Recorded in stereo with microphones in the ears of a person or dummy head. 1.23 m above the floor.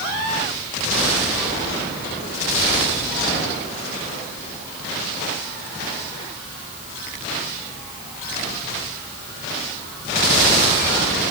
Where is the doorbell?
No doorbell in this recording.